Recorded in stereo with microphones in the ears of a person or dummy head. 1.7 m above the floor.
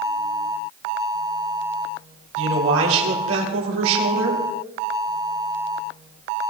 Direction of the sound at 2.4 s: 75° right (ahead or behind).